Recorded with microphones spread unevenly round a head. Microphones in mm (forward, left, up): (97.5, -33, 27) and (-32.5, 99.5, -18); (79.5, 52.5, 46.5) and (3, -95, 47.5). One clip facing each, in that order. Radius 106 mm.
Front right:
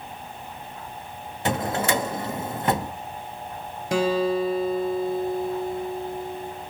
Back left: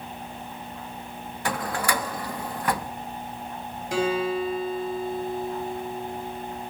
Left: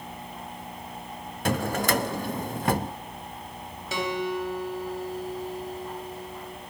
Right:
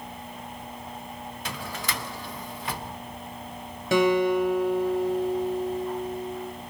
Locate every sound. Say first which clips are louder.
1.4 s a drawer: front right 4 dB, left 11 dB; 15° left, 0.6 m
3.9 s a guitar: front right 3 dB, right 8 dB; 80° right, 3.5 m